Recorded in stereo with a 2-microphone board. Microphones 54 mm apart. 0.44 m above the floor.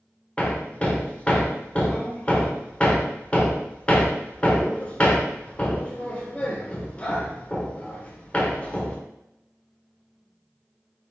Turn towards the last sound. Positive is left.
turn(degrees=25)  # may be behind; listen again after turning